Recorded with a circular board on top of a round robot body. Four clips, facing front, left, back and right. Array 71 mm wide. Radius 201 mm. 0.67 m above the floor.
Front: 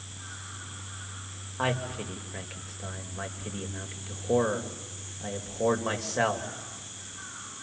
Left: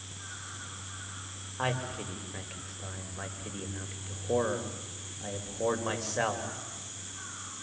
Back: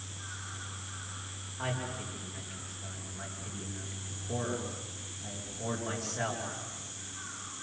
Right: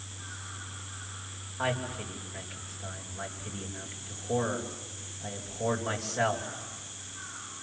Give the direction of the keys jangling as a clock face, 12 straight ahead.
I don't hear keys jangling.